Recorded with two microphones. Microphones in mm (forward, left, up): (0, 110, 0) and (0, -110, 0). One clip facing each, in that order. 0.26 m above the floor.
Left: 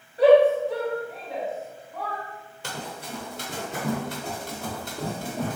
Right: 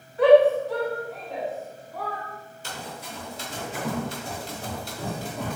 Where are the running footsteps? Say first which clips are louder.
Left 2 dB; 75° left (ahead or behind), 2.5 m; by 5.6 s 50° left (ahead or behind), 4 m.